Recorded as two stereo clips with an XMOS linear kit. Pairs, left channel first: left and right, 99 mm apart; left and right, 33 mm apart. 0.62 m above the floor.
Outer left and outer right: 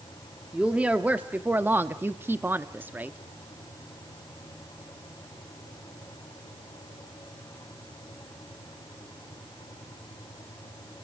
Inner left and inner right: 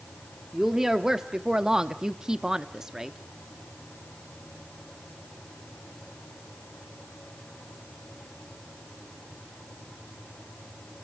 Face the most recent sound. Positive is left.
turn(degrees=-15)  # may be behind; listen again after turning